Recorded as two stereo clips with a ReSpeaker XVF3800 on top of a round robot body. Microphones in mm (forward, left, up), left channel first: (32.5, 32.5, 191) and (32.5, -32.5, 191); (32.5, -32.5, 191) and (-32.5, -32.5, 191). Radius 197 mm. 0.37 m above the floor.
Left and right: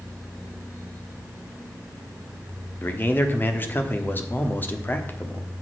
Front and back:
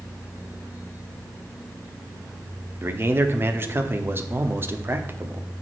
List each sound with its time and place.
2.8 s a man speaking: 140° left, 1.6 m